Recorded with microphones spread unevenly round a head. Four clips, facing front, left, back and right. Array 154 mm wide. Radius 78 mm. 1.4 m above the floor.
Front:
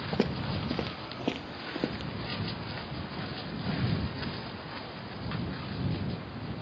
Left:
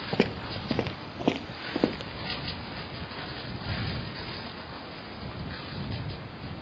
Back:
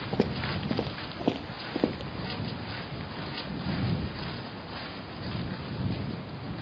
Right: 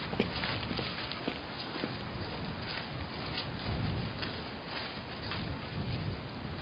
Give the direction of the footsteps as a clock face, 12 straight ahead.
8 o'clock.